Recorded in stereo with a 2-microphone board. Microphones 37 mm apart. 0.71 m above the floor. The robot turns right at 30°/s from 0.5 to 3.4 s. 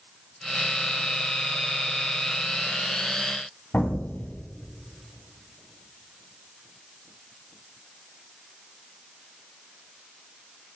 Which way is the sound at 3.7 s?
55° left (ahead or behind).